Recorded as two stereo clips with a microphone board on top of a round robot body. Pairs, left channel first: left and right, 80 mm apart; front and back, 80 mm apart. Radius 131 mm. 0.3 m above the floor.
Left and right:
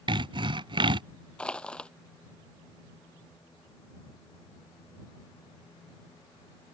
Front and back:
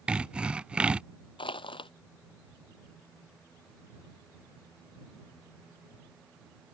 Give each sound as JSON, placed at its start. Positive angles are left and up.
{"t": 0.1, "sound": "sawing", "azimuth_deg": -105}
{"t": 1.4, "sound": "crushing", "azimuth_deg": 10}